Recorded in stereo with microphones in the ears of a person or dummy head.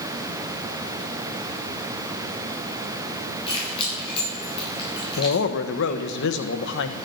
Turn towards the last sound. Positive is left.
turn(degrees=70)  # may be behind; listen again after turning